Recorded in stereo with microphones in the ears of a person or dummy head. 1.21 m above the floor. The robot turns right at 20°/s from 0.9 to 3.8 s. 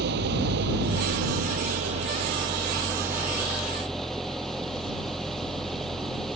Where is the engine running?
55° right; by 6.4 s 5° left.